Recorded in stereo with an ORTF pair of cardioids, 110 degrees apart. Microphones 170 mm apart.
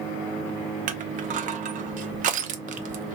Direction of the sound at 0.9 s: 55° right.